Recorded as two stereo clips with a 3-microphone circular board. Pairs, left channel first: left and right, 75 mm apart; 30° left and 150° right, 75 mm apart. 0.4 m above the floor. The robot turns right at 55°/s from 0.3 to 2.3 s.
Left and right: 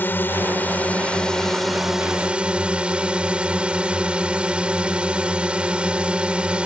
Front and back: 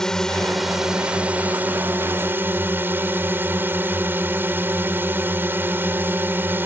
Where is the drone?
100° left; by 6.7 s 150° right.